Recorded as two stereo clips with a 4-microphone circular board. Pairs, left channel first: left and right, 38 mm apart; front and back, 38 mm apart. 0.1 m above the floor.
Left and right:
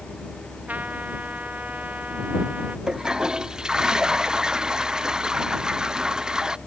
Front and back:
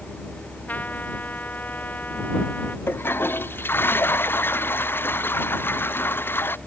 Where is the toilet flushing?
15° right.